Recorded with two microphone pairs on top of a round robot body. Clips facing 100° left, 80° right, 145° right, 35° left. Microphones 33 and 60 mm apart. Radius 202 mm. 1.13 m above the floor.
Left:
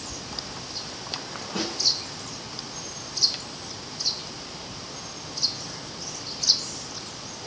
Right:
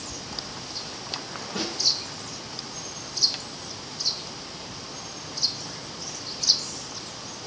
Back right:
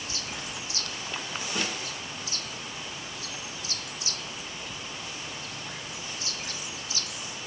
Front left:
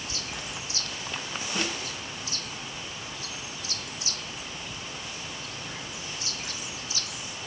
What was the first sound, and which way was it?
A snare drum, 135° left.